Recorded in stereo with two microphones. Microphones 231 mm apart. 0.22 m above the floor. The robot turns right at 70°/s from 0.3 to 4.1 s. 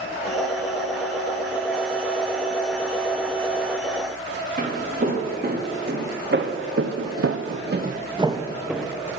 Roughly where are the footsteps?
Right.